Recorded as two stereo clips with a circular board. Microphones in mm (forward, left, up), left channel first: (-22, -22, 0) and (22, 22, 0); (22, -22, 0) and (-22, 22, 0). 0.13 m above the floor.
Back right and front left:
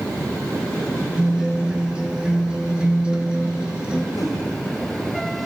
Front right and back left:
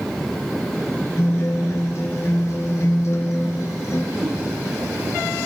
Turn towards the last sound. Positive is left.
turn(degrees=-145)